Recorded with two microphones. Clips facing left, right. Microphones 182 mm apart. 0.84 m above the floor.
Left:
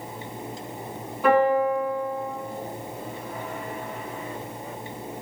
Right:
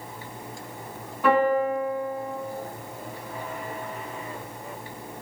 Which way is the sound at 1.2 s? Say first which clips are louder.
Left 2 dB; 5° left (ahead or behind).